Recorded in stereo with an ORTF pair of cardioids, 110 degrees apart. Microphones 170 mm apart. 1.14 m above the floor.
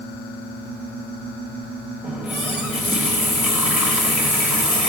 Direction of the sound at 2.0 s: 5° right.